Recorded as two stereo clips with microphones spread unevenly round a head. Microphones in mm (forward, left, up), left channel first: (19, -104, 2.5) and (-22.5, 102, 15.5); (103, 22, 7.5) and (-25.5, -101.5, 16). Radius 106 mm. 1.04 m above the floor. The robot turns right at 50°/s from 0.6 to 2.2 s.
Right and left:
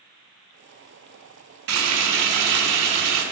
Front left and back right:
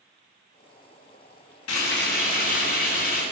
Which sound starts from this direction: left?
Frying, at 1.7 s.